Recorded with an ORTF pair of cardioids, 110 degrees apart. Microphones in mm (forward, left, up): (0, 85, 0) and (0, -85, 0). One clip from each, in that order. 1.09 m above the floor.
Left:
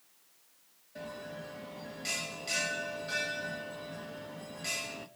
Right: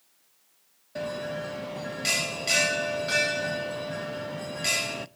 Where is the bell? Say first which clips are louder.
Right 11 dB; 50° right, 0.8 m.